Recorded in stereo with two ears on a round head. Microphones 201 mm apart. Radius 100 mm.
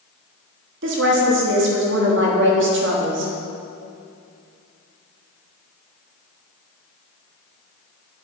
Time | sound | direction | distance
0.8 | a woman speaking | 55° right (ahead or behind) | 1.4 m